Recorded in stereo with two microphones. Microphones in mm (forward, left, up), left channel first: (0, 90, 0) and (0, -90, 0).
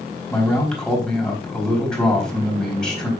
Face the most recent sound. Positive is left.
turn(degrees=5)  # may be behind; listen again after turning